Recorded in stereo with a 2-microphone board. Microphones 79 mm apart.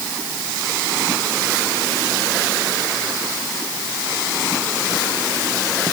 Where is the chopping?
I don't hear chopping.